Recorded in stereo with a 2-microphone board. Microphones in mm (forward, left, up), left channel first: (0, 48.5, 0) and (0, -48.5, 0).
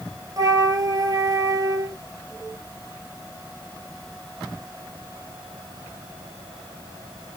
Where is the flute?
40° right (ahead or behind), 1.3 m.